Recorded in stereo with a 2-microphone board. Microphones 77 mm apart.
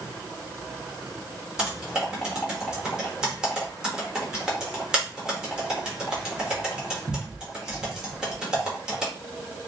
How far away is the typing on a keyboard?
About 0.9 m.